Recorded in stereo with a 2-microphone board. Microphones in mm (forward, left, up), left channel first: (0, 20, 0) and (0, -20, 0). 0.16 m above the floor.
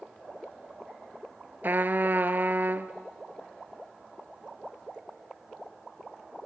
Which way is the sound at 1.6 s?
55° right (ahead or behind).